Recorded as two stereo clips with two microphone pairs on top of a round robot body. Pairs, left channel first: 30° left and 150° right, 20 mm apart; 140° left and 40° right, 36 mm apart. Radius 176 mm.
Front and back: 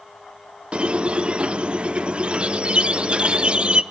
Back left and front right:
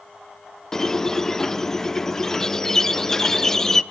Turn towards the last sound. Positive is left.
turn(degrees=-145)